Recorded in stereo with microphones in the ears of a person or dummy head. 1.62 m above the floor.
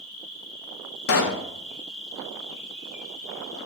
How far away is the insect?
About 1.2 m.